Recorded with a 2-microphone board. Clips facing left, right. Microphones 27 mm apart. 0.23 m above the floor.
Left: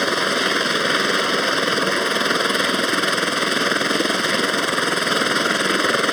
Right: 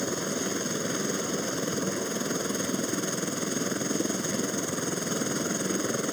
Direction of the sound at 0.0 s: 60° left (ahead or behind).